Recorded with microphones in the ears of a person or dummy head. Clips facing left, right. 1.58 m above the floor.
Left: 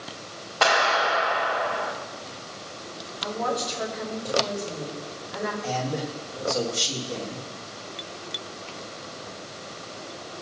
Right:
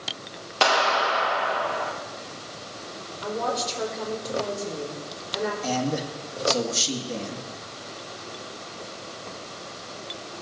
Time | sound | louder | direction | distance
0.6 | a clap | even | 40° right (ahead or behind) | 1.5 m
3.2 | a woman speaking | even | 30° right (ahead or behind) | 3.5 m
5.6 | a man speaking | right 2 dB | 75° right (ahead or behind) | 1.5 m